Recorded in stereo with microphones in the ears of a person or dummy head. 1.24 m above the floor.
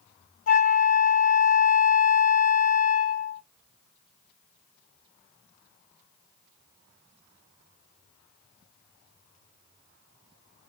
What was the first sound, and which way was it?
A flute, 40° left (ahead or behind).